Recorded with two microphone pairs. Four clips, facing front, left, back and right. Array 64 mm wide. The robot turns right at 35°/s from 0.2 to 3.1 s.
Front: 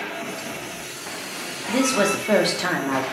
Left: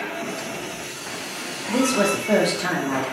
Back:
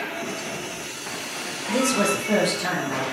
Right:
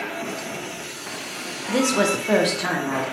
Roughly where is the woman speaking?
Ahead right.